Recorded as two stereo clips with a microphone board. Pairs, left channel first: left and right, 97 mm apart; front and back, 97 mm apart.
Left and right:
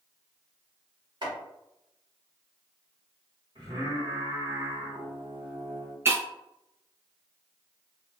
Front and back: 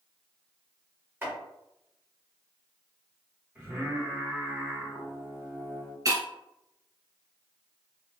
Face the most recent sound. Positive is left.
turn(degrees=-145)